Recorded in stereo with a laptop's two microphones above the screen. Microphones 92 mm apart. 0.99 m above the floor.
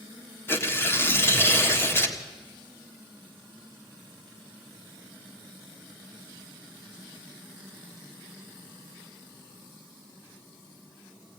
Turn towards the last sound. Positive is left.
turn(degrees=25)  # may be behind; listen again after turning